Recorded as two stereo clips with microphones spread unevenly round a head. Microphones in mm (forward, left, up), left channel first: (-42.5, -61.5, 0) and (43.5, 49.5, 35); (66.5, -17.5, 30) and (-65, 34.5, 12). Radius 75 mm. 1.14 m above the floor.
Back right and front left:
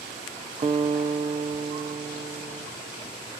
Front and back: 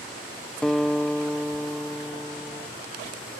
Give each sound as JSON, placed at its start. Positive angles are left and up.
{"t": 0.6, "sound": "a guitar", "azimuth_deg": 70, "distance_m": 0.6}